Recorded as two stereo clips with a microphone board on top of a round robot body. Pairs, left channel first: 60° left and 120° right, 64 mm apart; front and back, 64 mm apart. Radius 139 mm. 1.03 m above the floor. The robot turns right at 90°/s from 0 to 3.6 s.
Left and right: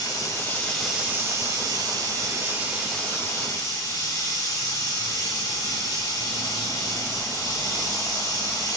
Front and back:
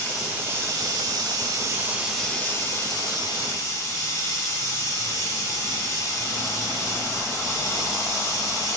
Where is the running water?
75° left, 2.5 m; by 8.8 s 40° left, 2.5 m.